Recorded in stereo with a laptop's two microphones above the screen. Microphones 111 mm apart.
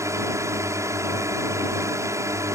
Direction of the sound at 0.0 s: 25° right (ahead or behind).